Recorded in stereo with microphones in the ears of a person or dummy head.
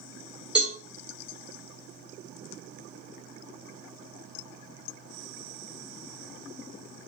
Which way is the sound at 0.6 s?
Centre (ahead or behind).